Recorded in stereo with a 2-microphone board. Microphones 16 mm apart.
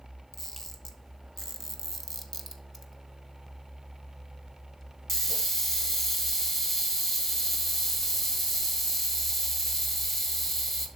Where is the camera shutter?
15° left (ahead or behind), 1.3 m.